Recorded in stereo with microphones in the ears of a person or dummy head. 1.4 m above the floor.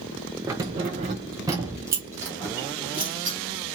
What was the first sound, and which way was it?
Keys jangling, 15° right (ahead or behind).